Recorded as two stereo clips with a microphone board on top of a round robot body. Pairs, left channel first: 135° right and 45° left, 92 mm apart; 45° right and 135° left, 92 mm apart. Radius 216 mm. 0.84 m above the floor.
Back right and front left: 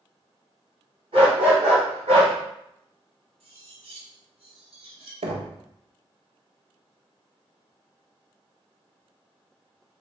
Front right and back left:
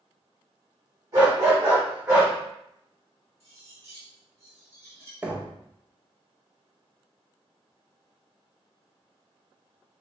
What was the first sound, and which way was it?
A dog barking, 80° left.